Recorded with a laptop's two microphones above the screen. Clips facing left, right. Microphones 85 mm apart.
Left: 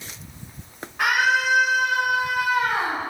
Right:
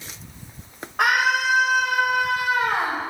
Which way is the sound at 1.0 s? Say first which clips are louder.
Right 1 dB; 80° right.